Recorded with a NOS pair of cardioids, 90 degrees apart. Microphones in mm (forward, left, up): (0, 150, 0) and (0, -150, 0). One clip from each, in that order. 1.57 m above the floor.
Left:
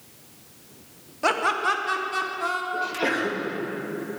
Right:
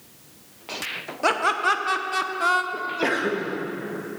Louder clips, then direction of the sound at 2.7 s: Even; 15° right.